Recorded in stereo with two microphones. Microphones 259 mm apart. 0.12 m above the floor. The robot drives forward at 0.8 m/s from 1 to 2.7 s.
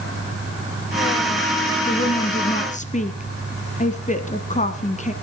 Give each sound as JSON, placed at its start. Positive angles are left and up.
{"t": 1.9, "sound": "a woman speaking", "side_deg": 25, "distance_m": 1.4}